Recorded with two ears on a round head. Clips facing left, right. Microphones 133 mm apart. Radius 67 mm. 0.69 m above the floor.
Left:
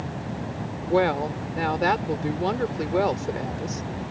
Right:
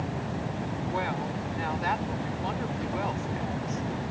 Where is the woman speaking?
70° left (ahead or behind).